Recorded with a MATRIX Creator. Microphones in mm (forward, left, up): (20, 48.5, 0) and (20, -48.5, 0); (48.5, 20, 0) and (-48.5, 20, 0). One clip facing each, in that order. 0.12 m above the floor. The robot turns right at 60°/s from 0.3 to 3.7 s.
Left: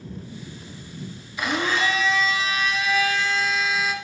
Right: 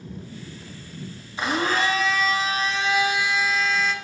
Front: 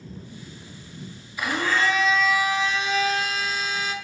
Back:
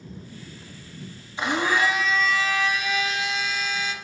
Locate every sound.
1.4 s a blender: 135° right, 0.8 m; by 3.9 s 5° left, 0.8 m